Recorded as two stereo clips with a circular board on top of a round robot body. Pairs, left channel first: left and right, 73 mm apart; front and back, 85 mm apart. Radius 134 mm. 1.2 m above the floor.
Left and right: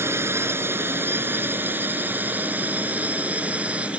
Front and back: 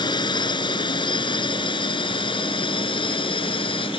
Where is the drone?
35° right; by 4.0 s 15° right.